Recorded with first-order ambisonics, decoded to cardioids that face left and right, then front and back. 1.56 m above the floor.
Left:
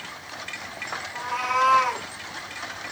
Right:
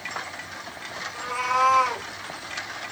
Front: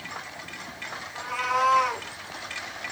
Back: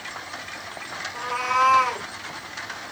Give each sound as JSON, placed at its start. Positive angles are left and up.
{"t": 1.1, "sound": "a cat meowing", "azimuth_deg": 155, "distance_m": 1.1}